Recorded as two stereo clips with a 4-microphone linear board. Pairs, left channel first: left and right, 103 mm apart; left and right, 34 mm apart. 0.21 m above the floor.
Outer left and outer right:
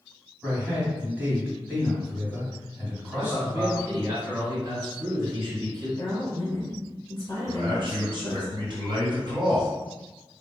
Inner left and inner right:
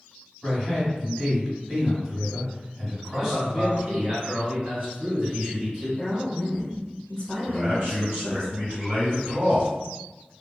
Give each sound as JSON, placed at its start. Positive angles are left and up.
{"t": 0.4, "sound": "a man speaking", "side_deg": -15, "distance_m": 1.6}
{"t": 3.1, "sound": "a man speaking", "side_deg": -35, "distance_m": 1.7}
{"t": 6.0, "sound": "a woman speaking", "side_deg": 20, "distance_m": 1.2}
{"t": 7.5, "sound": "a man speaking", "side_deg": -50, "distance_m": 1.8}